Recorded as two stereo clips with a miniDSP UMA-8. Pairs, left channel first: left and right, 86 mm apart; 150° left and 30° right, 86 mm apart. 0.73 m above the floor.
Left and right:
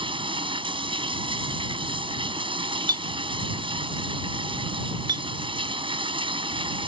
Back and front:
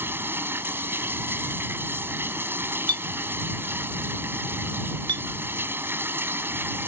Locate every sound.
0.0 s running water: 95° right
2.9 s a clink: 55° right